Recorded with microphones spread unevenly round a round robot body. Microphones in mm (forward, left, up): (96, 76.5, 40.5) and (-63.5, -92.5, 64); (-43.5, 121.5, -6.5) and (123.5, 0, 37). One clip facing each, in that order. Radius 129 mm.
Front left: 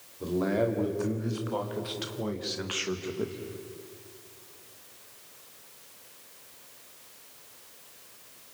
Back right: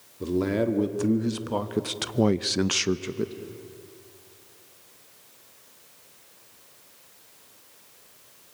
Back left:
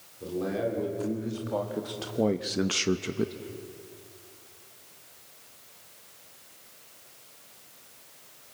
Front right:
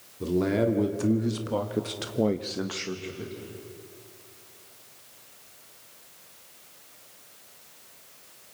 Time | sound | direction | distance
0.2 | a man speaking | 80° right | 2.5 m